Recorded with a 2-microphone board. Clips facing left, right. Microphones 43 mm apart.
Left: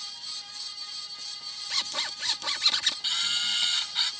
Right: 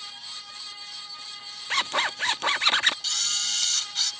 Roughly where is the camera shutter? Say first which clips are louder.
Left 2 dB; centre.